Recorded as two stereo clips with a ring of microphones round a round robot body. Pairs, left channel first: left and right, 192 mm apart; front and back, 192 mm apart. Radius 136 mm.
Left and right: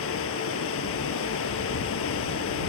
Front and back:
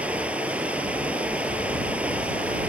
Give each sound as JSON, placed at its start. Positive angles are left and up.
{"t": 0.0, "sound": "running water", "azimuth_deg": 95}